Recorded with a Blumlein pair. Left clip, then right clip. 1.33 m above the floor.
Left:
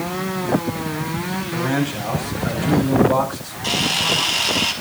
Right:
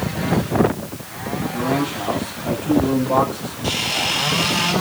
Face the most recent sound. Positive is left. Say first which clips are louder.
# left 2 dB
turn(degrees=10)